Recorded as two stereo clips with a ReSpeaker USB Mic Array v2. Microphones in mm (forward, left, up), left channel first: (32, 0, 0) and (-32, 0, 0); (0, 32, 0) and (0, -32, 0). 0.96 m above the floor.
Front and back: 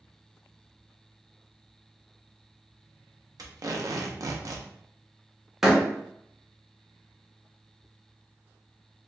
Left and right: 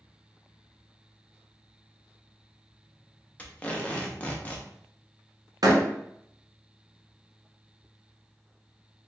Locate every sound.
3.4 s tape being pulled: 160° left, 0.7 m
5.6 s a door slam: 95° right, 0.9 m